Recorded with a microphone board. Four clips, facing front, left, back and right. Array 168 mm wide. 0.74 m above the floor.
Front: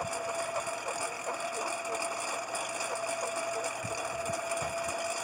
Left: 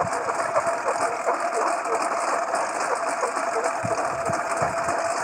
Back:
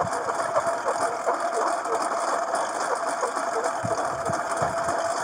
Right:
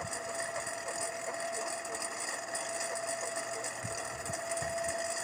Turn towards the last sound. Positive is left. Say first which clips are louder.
# left 14 dB, back 9 dB
turn(degrees=125)